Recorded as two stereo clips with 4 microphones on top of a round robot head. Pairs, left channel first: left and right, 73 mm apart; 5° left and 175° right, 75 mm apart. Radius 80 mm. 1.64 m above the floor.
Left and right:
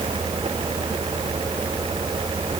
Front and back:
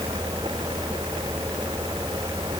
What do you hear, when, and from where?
Only background noise.